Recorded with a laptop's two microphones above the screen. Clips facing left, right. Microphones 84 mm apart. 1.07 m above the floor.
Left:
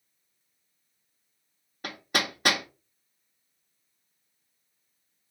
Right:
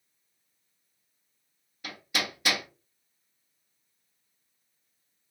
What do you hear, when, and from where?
1.8 s hammering: 55° left (ahead or behind), 0.6 m